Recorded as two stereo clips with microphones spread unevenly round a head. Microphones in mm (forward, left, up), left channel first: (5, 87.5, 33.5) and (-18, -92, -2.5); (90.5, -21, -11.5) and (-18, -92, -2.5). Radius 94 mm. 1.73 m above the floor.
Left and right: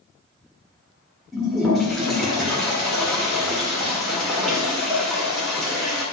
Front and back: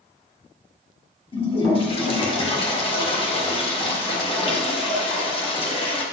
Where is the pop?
I don't hear a pop.